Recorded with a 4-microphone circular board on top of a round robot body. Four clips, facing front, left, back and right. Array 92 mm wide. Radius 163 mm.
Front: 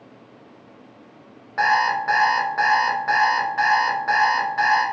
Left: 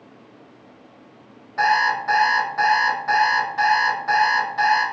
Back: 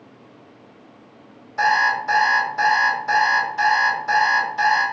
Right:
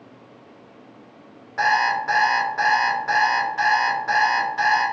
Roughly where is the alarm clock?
Ahead.